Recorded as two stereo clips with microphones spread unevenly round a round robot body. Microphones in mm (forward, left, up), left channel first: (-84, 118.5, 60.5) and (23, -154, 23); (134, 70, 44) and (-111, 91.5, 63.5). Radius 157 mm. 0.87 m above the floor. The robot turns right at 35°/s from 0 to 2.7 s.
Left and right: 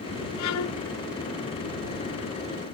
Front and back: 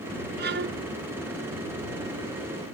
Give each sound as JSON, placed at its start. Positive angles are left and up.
{"t": 0.4, "sound": "a violin", "azimuth_deg": 130}